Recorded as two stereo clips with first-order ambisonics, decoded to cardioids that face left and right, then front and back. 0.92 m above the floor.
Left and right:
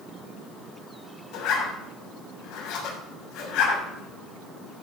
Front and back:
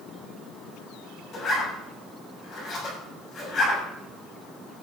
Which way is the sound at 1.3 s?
60° left.